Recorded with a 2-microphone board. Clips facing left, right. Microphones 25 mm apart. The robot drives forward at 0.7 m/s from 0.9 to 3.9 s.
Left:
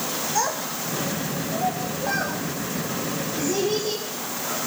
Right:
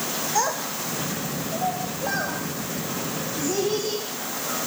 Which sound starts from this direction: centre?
A child speaking, at 0.3 s.